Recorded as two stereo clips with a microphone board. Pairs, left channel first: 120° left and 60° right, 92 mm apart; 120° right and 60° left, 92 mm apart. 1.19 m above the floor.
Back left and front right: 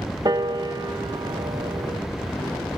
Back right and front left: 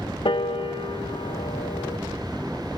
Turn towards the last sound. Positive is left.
turn(degrees=-100)